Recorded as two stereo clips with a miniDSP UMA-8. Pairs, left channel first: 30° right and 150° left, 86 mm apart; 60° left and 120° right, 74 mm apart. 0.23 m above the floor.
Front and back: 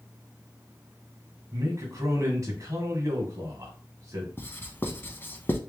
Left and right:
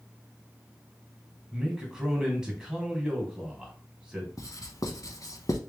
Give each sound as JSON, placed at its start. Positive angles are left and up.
{"t": 1.5, "sound": "a man speaking", "azimuth_deg": 165, "distance_m": 1.5}
{"t": 4.4, "sound": "writing", "azimuth_deg": 30, "distance_m": 0.5}